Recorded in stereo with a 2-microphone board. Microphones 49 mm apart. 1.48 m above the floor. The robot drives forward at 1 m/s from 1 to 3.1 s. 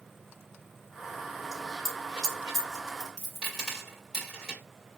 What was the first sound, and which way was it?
A dropped coin, 5° right (ahead or behind).